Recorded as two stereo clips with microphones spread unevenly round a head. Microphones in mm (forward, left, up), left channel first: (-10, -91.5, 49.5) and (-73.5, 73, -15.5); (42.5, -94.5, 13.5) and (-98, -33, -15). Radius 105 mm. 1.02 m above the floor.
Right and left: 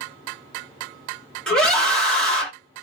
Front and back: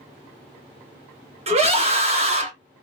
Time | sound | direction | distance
1.5 | a scream | 160° right | 2.5 m